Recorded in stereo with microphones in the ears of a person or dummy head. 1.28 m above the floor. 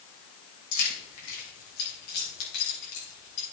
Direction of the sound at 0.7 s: 70° left (ahead or behind).